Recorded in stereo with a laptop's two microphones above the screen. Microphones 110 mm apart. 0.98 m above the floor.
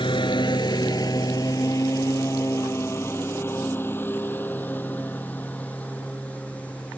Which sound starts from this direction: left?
A lawn mower, at 0.0 s.